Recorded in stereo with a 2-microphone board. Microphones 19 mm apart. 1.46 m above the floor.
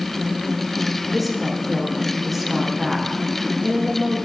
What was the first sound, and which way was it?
A woman speaking, 10° right (ahead or behind).